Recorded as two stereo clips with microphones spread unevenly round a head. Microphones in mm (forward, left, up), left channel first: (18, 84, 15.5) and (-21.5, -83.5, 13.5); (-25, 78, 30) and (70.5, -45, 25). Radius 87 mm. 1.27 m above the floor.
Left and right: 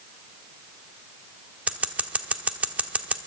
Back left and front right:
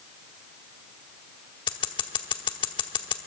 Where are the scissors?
175° left, 1.0 m.